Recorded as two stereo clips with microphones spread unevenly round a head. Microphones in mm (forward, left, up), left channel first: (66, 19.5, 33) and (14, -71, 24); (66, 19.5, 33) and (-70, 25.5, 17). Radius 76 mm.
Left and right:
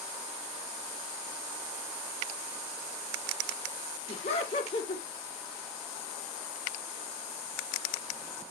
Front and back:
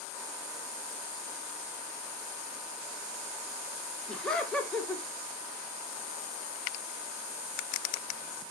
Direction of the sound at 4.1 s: 85° left.